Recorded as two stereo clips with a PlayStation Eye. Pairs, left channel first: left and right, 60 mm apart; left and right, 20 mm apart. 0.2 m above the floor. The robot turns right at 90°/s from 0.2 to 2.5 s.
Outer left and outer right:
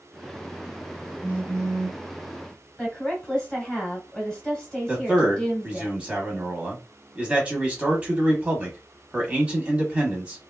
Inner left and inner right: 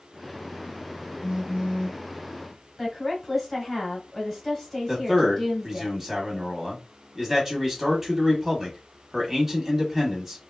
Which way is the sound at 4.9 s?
20° right (ahead or behind).